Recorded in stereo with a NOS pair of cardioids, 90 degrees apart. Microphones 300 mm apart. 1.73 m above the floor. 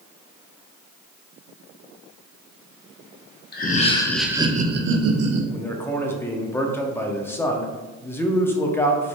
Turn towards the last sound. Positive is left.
turn(degrees=10)